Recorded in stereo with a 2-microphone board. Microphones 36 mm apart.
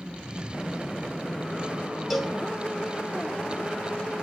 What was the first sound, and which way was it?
A cowbell, centre (ahead or behind).